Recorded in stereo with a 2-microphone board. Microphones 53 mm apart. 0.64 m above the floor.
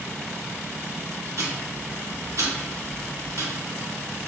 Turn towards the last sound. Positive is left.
turn(degrees=-80)